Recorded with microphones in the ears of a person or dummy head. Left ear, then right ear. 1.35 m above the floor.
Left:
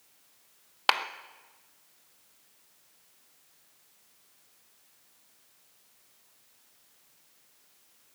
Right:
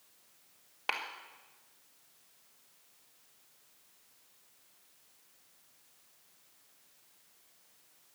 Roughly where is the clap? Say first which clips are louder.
Left 9 dB; left.